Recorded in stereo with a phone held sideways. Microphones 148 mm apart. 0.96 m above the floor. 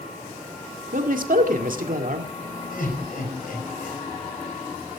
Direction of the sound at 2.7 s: 65° left (ahead or behind).